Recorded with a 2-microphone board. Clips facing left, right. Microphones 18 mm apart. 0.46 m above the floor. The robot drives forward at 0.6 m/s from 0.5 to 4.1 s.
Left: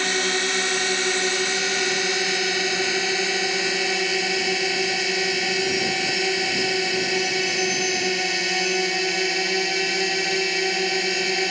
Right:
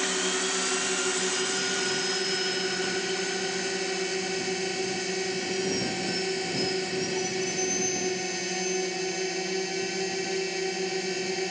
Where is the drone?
40° left (ahead or behind); by 11.5 s 35° left (ahead or behind).